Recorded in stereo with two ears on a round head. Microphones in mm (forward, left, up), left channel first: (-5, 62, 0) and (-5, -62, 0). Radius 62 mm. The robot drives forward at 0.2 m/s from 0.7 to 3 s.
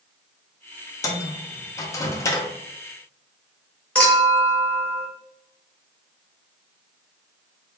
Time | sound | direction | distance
1.0 | a microwave | 25° left (ahead or behind) | 0.5 m
4.0 | a clink | 10° left (ahead or behind) | 1.4 m